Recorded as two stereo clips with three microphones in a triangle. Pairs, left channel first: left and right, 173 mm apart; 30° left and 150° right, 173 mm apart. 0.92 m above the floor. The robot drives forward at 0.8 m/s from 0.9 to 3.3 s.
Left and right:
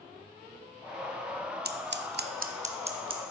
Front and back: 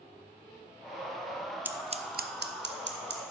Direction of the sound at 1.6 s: 70° right.